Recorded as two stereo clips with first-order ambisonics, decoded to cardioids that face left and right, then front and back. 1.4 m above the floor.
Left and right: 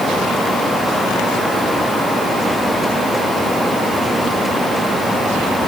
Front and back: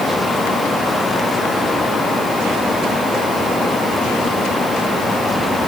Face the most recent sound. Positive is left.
No sound to turn to.